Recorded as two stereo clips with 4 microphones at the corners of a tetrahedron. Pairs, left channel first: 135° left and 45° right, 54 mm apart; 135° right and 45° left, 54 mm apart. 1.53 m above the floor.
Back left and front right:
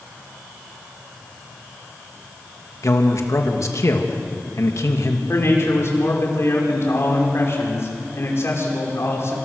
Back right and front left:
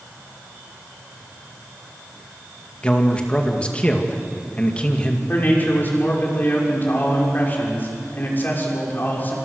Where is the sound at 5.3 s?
170° left, 6 m.